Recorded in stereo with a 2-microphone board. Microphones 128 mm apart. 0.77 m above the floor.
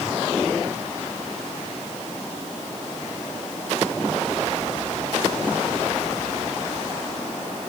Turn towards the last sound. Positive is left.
No sound to turn to.